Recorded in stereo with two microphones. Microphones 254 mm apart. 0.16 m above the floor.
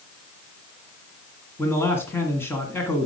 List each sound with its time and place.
1.6 s a man speaking: 10° left (ahead or behind), 1.8 m